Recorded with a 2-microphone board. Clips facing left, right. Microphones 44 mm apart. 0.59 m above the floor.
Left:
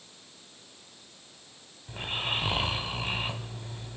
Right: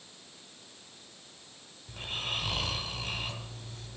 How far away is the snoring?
About 1.2 m.